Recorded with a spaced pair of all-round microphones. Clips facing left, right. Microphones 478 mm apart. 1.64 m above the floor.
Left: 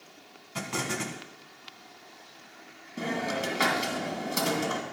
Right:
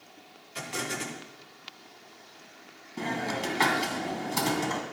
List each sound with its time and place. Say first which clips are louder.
0.6 s an explosion: left 2 dB; 65° left (ahead or behind), 1.5 m
3.0 s a hiss: left 1 dB; 15° right (ahead or behind), 2 m